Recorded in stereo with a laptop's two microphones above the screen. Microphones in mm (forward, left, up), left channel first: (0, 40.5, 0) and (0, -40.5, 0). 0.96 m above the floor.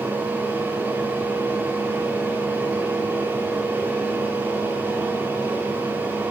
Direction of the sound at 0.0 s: 25° right (ahead or behind).